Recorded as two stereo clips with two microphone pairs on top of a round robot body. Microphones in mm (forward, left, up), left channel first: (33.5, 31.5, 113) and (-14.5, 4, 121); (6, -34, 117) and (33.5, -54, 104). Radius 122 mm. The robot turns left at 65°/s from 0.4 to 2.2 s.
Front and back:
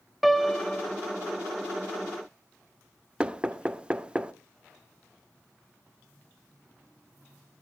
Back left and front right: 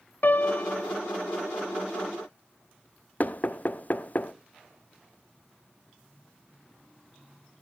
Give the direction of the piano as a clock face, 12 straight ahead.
8 o'clock.